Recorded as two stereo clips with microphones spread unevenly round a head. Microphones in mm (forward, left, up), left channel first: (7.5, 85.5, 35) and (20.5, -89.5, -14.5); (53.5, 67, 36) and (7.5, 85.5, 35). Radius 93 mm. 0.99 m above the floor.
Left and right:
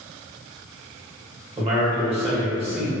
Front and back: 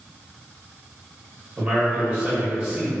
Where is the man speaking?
130° right, 1.3 m.